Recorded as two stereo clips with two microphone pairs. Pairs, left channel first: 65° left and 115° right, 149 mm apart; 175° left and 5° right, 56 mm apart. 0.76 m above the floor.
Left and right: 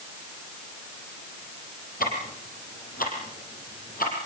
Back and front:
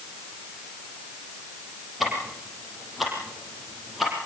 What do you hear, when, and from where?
2.0 s ticking: 85° left, 7.5 m